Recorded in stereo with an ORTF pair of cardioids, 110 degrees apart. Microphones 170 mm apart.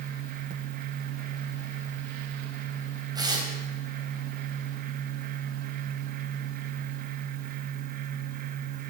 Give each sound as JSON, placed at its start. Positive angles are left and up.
{"t": 0.0, "sound": "a fan", "azimuth_deg": -60, "distance_m": 0.8}
{"t": 3.1, "sound": "tearing paper", "azimuth_deg": -25, "distance_m": 4.0}